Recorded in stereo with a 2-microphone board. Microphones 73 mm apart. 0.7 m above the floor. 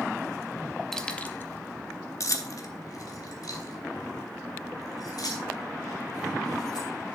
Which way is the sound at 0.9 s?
5° left (ahead or behind).